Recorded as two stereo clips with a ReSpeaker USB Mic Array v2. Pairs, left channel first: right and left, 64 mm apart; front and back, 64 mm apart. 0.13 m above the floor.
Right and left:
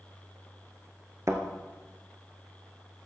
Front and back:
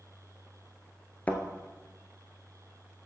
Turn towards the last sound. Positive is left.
turn(degrees=60)